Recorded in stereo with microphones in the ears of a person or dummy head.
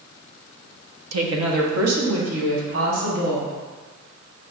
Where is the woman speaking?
85° right, 0.6 m.